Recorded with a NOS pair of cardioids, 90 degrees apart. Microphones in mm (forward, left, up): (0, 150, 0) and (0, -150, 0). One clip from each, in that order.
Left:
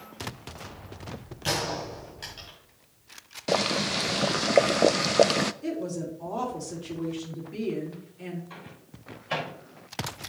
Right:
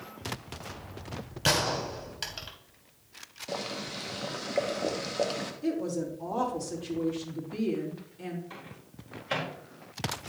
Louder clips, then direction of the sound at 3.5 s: Left 10 dB; 50° left.